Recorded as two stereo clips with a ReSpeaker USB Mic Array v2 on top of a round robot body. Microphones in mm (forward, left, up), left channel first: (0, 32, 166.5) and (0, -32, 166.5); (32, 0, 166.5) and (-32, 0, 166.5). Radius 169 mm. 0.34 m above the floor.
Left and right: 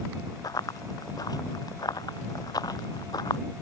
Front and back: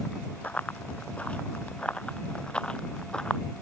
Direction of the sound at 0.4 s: 70° left.